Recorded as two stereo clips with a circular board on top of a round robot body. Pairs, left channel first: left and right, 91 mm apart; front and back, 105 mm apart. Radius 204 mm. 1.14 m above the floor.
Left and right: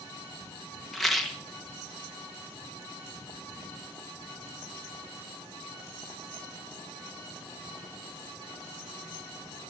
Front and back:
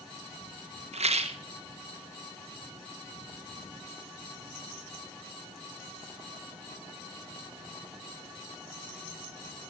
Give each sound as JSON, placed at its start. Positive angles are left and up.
{"t": 0.9, "sound": "a rattle", "azimuth_deg": 180, "distance_m": 2.0}